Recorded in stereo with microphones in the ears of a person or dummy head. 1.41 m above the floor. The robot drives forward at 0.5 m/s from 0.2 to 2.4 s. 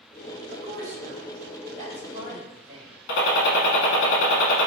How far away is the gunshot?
About 0.8 m.